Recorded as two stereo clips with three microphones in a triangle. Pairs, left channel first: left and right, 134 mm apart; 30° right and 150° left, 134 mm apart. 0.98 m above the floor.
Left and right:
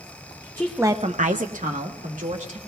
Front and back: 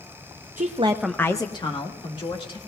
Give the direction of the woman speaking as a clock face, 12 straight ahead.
7 o'clock.